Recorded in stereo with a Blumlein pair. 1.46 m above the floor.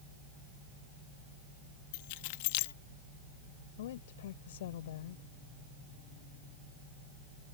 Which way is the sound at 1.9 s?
50° left.